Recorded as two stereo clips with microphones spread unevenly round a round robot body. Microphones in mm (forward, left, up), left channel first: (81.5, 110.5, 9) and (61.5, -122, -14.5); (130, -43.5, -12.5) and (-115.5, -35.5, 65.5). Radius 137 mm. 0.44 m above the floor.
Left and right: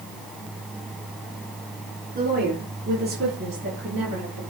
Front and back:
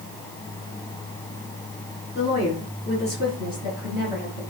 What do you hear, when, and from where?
2.1 s a woman speaking: 45° right, 7 m; by 4.4 s 55° right, 8 m